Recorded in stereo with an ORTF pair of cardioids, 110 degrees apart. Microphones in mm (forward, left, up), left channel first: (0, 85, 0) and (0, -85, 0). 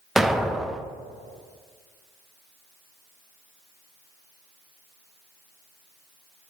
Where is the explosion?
Straight ahead, 0.5 m.